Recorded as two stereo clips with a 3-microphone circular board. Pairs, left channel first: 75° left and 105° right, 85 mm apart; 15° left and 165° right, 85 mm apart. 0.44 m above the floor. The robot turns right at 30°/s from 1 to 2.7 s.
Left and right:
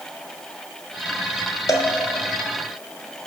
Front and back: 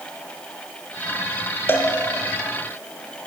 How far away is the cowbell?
About 1.1 m.